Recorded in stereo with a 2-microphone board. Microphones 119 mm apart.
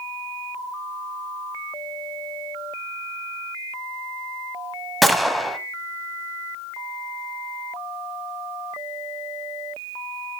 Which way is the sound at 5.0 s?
Centre (ahead or behind).